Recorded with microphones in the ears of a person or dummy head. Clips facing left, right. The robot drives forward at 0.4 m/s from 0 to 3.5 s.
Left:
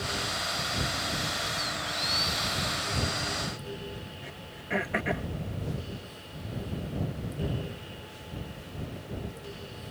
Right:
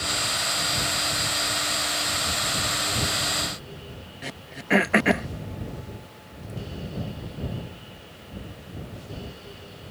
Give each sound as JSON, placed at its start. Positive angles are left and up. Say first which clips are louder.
{"t": 4.2, "sound": "throat clearing", "louder": "right 7 dB", "side_deg": -75}